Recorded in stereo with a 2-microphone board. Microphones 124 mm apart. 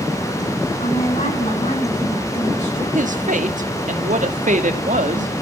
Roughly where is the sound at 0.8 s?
Left.